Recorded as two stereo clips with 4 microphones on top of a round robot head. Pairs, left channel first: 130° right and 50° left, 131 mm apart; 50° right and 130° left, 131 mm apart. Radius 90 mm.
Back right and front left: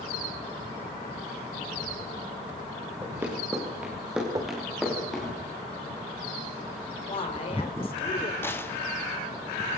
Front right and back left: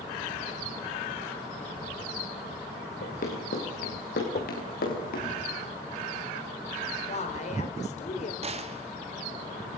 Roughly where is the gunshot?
Behind.